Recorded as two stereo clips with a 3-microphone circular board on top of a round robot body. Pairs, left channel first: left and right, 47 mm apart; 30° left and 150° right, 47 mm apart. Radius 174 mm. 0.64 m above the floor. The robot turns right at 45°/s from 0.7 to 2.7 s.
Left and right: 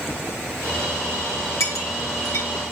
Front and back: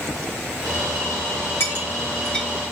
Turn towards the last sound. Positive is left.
turn(degrees=120)